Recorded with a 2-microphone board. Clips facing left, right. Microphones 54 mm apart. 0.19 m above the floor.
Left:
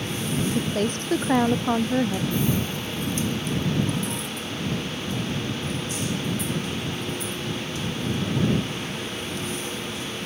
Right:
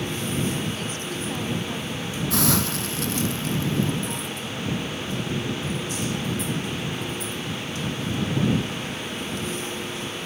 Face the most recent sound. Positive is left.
turn(degrees=-85)